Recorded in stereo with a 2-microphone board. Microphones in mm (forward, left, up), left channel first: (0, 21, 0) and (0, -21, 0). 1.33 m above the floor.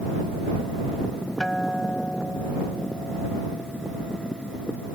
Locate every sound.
1.4 s a guitar: 20° left (ahead or behind)